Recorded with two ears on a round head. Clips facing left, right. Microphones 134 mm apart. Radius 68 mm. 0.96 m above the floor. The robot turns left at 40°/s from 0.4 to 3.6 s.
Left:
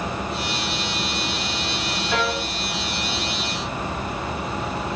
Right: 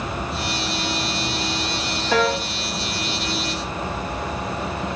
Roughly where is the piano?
Right.